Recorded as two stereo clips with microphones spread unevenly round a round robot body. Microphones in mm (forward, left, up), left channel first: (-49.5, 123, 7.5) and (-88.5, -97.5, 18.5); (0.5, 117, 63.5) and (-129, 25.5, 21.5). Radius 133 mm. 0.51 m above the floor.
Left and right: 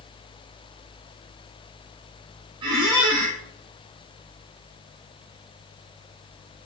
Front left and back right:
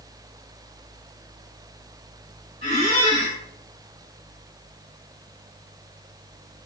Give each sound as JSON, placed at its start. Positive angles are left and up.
{"t": 2.6, "sound": "a squeak", "azimuth_deg": -25, "distance_m": 1.7}